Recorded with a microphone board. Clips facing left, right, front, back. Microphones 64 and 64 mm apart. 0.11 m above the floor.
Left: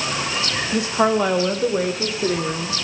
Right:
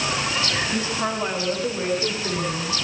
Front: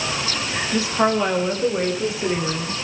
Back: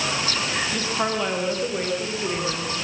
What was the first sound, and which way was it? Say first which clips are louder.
A woman speaking: left 7 dB, front 9 dB; 75° left.